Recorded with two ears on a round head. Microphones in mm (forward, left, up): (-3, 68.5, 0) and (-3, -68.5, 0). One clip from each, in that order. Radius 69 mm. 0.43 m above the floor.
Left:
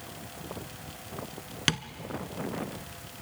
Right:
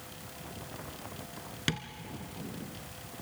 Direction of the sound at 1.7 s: 25° left (ahead or behind).